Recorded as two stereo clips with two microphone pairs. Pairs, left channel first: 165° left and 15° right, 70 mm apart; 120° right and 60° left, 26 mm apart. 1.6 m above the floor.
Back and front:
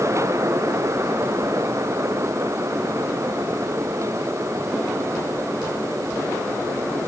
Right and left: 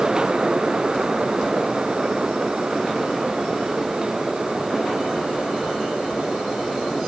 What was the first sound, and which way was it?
Only background noise.